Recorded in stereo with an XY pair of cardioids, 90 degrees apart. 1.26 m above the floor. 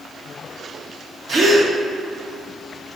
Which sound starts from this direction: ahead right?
A gasp, at 1.3 s.